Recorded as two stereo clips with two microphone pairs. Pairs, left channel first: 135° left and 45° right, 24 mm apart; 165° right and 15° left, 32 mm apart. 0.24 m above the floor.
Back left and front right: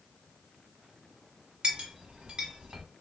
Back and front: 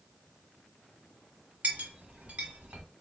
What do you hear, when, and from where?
1.6 s a clink: 5° right, 1.2 m